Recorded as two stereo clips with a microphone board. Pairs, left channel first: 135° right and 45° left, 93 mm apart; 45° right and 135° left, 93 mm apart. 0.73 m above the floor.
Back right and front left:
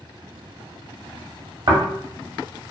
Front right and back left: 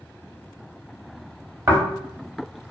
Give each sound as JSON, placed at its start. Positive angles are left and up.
{"t": 1.7, "sound": "snoring", "azimuth_deg": 75, "distance_m": 0.9}